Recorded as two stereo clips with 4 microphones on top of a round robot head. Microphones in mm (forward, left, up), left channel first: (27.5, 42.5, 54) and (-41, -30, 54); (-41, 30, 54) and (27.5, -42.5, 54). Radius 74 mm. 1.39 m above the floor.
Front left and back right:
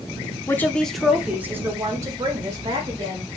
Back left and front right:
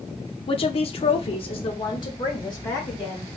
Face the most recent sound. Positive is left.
turn(degrees=-175)